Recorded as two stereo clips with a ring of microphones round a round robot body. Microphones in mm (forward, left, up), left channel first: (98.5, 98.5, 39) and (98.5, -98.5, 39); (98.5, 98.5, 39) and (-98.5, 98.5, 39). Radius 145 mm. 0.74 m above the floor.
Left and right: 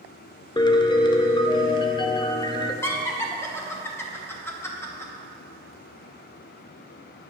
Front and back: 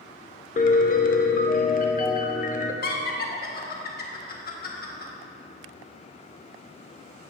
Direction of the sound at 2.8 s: 15° left.